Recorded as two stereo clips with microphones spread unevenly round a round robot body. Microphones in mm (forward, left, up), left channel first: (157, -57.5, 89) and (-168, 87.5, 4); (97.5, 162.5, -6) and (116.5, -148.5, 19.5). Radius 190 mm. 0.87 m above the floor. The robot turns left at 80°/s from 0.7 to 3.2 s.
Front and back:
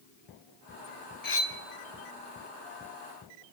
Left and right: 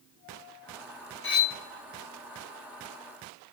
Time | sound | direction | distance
1.2 | cutlery clinking | 40° left | 1.0 m